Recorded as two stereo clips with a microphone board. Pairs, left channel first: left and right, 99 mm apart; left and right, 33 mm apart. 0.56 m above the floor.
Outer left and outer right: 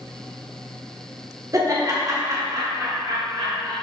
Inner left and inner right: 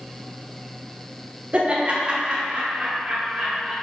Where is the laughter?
30° right (ahead or behind), 1.4 m; by 3.7 s 35° right (ahead or behind), 4 m.